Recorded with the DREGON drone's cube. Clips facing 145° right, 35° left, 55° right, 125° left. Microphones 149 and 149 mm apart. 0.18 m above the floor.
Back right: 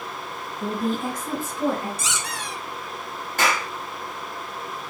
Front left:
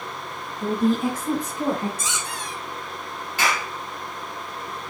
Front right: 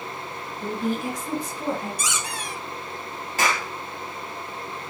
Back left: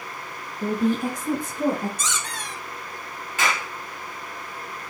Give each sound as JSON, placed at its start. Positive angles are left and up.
{"t": 0.6, "sound": "a woman speaking", "azimuth_deg": 135, "distance_m": 1.9}
{"t": 2.0, "sound": "a squeak", "azimuth_deg": -135, "distance_m": 1.6}
{"t": 3.4, "sound": "a clap", "azimuth_deg": -105, "distance_m": 4.0}